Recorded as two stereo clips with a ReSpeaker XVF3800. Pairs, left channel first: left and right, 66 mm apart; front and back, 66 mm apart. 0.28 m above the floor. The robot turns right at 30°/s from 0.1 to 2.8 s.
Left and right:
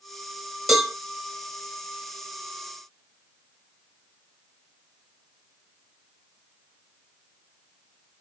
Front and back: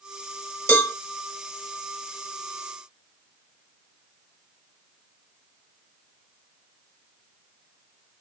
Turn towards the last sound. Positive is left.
turn(degrees=60)